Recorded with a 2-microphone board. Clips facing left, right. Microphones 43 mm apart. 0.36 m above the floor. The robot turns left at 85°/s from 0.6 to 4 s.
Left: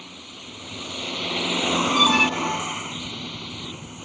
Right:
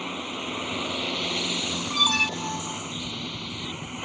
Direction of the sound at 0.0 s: 130° right.